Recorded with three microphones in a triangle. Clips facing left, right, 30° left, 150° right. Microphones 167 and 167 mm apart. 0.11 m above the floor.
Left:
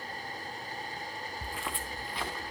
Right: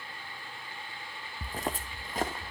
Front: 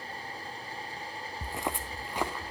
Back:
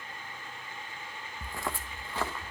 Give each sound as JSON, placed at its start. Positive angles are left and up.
{"t": 1.4, "sound": "footsteps", "azimuth_deg": -40, "distance_m": 0.5}